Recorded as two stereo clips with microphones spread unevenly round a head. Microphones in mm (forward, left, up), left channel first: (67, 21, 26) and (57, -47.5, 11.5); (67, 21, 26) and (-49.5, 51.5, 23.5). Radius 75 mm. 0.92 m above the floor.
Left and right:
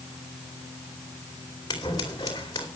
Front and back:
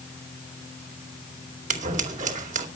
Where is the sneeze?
No sneeze in this recording.